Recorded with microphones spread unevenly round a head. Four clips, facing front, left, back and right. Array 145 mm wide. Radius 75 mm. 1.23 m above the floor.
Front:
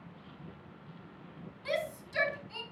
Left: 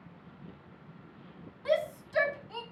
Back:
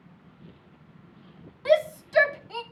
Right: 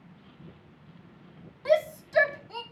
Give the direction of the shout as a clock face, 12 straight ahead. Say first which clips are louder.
Right 5 dB, back 13 dB; 5 o'clock.